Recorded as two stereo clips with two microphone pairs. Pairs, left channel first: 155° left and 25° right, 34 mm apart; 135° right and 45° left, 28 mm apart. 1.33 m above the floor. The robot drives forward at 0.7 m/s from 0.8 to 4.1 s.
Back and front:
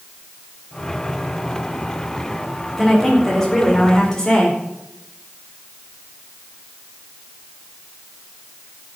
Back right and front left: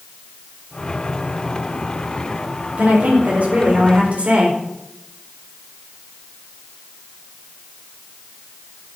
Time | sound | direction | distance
2.8 | a woman speaking | 75° left | 4.5 m